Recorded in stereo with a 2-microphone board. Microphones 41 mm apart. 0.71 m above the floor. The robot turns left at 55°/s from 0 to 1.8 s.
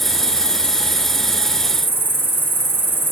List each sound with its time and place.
0.0 s an insect: 5° left, 4.5 m; by 3.1 s 95° right, 4.5 m